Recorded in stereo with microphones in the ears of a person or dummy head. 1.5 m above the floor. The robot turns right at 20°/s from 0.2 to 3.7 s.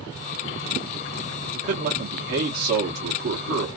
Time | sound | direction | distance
1.5 | a man speaking | 130° right | 0.8 m